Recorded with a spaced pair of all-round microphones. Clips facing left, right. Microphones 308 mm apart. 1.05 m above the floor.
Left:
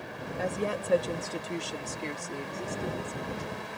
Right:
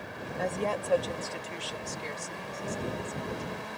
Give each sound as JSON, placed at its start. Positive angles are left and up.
{"t": 0.4, "sound": "a woman speaking", "side_deg": 0}